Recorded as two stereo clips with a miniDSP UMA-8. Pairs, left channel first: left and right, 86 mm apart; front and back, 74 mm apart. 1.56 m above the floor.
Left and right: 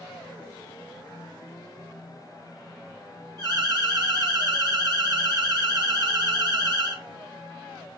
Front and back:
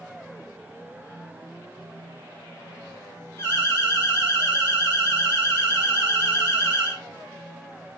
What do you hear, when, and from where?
3.4 s an alarm: 50° right, 1.6 m